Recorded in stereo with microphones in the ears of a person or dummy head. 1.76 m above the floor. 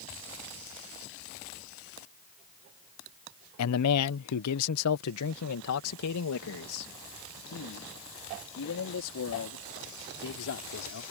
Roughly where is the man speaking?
Left.